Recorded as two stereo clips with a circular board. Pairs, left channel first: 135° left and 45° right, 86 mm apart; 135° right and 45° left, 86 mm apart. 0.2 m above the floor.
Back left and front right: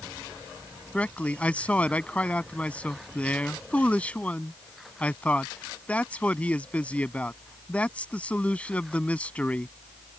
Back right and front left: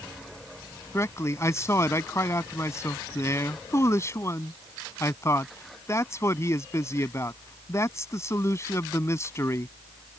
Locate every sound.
0.9 s a man speaking: 160° right